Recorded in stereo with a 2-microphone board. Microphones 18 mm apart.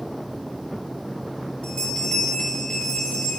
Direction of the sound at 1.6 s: 55° left (ahead or behind).